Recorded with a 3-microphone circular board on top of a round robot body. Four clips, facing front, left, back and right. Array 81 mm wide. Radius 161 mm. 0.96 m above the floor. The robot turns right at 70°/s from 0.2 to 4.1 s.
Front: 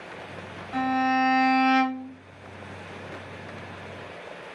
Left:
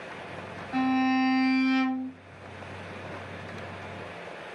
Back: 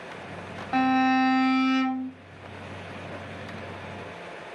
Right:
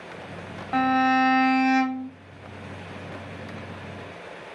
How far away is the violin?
About 0.7 m.